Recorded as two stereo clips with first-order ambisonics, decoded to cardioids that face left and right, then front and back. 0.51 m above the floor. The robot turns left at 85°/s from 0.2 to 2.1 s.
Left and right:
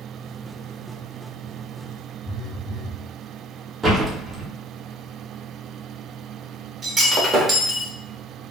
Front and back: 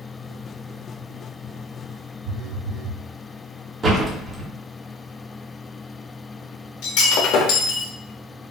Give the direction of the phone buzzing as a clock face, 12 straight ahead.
5 o'clock.